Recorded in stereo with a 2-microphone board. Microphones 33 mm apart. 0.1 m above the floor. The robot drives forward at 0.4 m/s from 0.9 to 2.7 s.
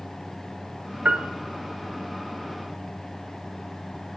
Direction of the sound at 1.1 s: 45° right (ahead or behind).